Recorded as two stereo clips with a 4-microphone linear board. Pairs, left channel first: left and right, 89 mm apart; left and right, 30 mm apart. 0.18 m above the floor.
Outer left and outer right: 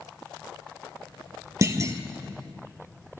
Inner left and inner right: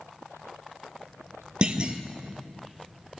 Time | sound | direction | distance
1.6 | a clunk | 35° right (ahead or behind) | 0.7 m